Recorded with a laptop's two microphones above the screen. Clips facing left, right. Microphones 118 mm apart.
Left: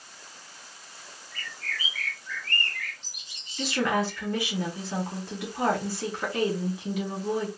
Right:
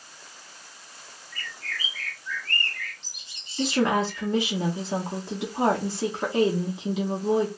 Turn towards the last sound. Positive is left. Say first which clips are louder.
# right 3 dB
turn(degrees=-20)  # may be behind; listen again after turning